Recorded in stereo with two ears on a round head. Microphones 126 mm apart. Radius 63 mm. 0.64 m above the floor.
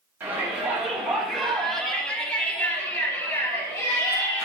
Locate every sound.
0.2 s a shout: 15° right (ahead or behind), 5 m; by 4.5 s 25° left (ahead or behind), 7 m